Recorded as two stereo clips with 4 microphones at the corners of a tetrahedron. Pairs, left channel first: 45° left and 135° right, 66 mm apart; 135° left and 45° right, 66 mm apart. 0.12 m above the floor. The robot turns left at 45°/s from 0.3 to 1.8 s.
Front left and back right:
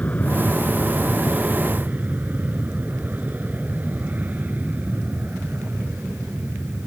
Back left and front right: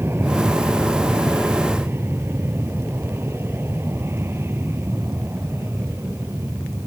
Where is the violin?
I don't hear a violin.